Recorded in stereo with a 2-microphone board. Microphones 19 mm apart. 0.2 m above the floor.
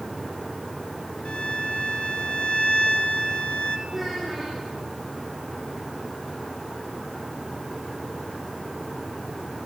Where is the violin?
60° left (ahead or behind), 4 m.